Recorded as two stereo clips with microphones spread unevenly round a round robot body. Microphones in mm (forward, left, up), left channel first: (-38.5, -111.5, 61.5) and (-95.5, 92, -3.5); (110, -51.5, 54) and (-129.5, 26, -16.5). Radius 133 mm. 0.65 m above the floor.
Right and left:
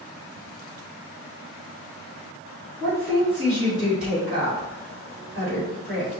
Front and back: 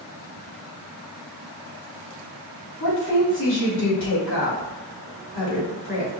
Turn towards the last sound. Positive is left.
turn(degrees=30)